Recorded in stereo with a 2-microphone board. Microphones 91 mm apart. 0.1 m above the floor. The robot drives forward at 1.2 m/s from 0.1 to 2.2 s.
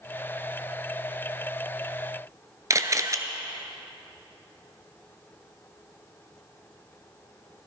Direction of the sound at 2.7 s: 40° right (ahead or behind).